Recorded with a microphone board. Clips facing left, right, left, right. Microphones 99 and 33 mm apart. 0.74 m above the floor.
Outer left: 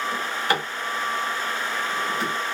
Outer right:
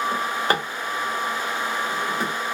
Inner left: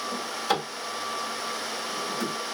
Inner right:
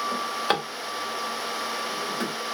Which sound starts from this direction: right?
A drawer, at 0.1 s.